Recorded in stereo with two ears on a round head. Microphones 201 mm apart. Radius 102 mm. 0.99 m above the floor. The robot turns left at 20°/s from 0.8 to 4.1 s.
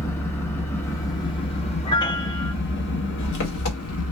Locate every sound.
0.0 s an engine running: 170° left, 1.1 m; by 4.1 s 100° left, 1.1 m
1.9 s a piano: 20° left (ahead or behind), 0.6 m; by 2.5 s 10° left (ahead or behind), 0.6 m